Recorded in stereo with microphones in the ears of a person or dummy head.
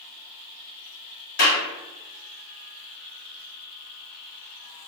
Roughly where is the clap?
Left.